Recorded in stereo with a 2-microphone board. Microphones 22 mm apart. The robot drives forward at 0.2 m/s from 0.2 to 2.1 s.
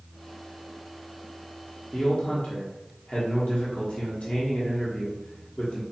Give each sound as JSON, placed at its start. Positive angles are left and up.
{"t": 1.9, "sound": "a man speaking", "side_deg": 75, "distance_m": 0.9}